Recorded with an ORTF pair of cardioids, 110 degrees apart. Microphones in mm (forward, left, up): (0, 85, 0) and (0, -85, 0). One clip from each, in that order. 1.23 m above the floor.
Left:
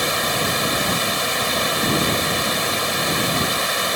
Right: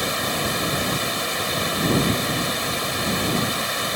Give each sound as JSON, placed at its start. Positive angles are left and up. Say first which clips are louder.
{"t": 0.0, "sound": "running water", "louder": "left 3 dB", "azimuth_deg": 25}